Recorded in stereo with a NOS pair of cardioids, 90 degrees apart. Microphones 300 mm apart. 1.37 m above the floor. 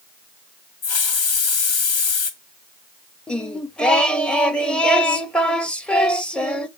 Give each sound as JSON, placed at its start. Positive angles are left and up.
{"t": 0.8, "sound": "a hiss", "azimuth_deg": 55, "distance_m": 1.5}
{"t": 3.3, "sound": "singing", "azimuth_deg": 5, "distance_m": 0.7}